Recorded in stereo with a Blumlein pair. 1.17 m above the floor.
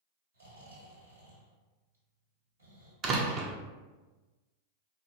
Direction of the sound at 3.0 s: 30° right.